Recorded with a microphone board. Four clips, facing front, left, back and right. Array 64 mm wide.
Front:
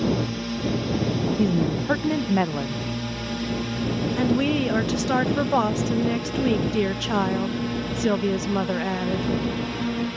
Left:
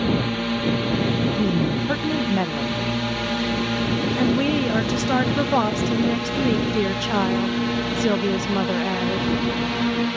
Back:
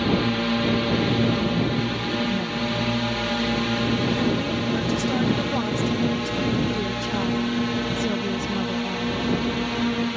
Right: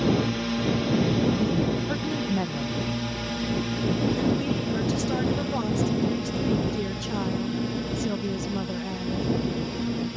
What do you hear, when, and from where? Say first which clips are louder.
0.0 s a drone: left 2 dB, back 3 dB; 155° left; by 10.2 s 110° left
1.4 s a woman speaking: left 3 dB, front 1 dB; 25° left
4.2 s a woman speaking: left 5 dB, front 2 dB; 50° left